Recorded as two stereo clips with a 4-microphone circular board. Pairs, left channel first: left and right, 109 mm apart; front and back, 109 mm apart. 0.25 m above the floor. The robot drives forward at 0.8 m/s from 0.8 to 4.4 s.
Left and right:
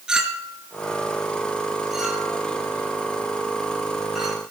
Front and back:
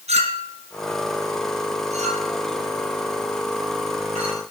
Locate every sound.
0.1 s a clink: 175° right, 2 m